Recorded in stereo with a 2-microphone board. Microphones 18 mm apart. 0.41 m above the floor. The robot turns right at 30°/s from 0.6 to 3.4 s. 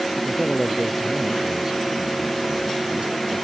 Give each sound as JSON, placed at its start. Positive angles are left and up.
{"t": 0.2, "sound": "a man speaking", "azimuth_deg": 175}